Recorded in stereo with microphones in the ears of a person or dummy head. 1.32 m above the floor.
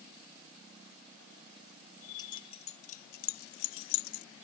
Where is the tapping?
I don't hear tapping.